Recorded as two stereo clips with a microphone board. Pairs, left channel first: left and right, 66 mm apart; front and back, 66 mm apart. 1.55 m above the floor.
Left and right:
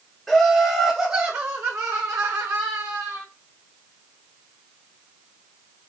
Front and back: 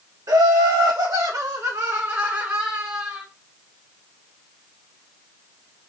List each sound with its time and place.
0.3 s laughter: 170° left, 0.9 m; by 3.2 s 100° right, 1.6 m